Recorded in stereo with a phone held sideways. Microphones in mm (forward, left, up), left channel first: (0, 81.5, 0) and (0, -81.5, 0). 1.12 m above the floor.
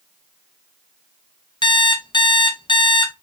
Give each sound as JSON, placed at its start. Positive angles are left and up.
{"t": 1.6, "sound": "an alarm clock", "side_deg": 30, "distance_m": 0.6}